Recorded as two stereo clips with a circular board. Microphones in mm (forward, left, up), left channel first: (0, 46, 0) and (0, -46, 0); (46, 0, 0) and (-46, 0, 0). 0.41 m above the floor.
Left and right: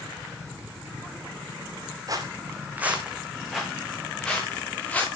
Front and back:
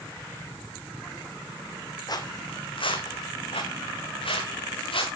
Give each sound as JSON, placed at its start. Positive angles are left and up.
{"t": 2.1, "sound": "footsteps", "azimuth_deg": -45, "distance_m": 1.5}